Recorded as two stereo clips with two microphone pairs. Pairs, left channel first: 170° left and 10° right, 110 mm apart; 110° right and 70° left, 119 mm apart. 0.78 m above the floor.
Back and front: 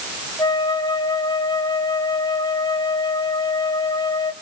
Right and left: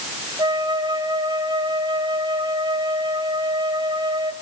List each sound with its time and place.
0.4 s a flute: 120° left, 1.7 m